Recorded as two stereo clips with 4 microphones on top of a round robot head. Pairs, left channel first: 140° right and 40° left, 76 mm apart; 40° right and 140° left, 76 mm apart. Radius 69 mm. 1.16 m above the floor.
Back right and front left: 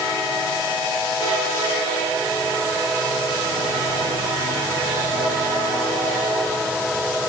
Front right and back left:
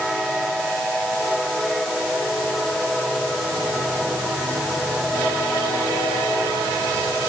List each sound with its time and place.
Only background noise.